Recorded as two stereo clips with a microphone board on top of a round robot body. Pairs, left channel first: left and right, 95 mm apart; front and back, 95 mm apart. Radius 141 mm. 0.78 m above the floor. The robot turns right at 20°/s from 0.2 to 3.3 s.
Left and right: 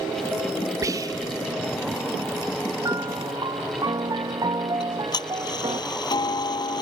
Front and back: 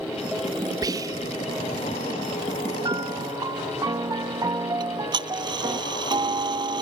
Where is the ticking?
140° left.